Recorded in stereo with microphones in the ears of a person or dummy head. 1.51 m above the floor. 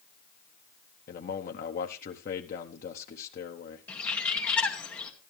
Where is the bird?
10° left (ahead or behind), 2 m.